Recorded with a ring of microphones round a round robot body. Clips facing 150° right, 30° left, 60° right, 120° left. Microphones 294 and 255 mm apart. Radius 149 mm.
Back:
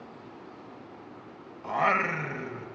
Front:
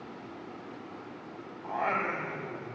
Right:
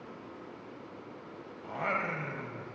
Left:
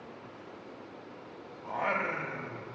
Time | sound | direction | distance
1.6 | singing | 135° right | 0.8 m